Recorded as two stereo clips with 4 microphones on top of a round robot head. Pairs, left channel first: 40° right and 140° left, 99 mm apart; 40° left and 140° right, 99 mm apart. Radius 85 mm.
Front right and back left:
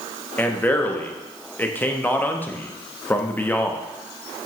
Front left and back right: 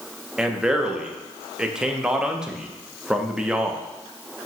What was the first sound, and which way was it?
A man speaking, 70° right.